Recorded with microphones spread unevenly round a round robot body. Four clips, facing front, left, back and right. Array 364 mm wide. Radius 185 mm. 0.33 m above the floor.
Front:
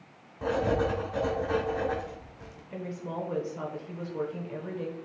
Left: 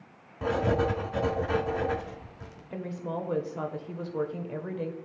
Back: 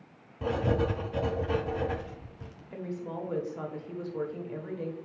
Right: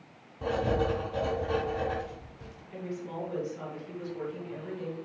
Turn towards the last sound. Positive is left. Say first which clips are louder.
# left 3 dB, front 1 dB
turn(degrees=100)